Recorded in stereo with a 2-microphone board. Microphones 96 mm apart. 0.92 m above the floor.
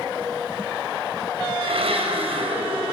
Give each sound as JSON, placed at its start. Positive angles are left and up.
{"t": 1.6, "sound": "a blender", "side_deg": -75, "distance_m": 5.5}